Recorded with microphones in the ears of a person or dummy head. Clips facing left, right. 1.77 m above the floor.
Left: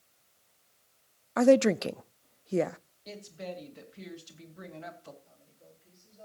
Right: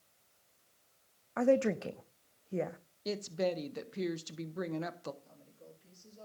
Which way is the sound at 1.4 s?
80° left.